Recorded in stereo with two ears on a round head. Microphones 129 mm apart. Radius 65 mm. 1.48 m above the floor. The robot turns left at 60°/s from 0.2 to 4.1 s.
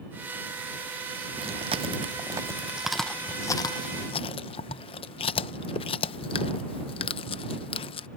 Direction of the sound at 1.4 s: 40° right (ahead or behind).